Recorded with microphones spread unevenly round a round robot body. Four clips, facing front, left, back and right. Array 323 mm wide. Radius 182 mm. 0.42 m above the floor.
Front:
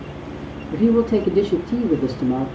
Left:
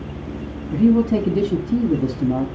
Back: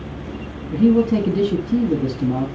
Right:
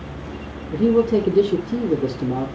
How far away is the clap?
I don't hear a clap.